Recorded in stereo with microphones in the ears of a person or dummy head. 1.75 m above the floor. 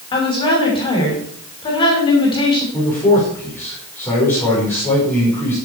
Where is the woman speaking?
30° left (ahead or behind), 6 m.